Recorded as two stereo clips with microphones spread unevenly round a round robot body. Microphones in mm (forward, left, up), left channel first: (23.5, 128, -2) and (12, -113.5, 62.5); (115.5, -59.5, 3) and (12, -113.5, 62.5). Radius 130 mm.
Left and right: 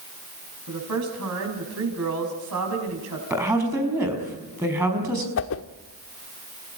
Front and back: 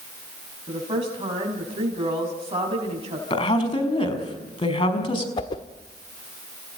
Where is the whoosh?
70° left, 1.0 m.